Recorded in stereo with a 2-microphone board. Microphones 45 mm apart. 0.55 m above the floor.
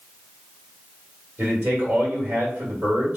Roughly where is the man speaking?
Right.